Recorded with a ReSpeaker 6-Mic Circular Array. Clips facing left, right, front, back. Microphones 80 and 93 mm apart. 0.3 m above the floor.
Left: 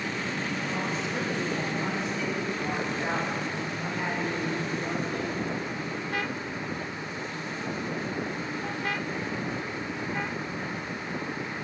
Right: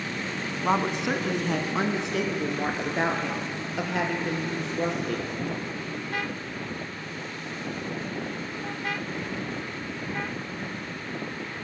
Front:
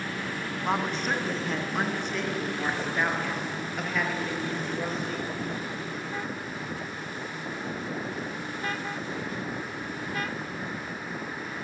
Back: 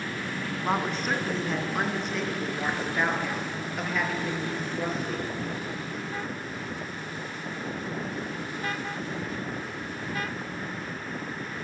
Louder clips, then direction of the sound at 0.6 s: Right 6 dB, even; 90° right.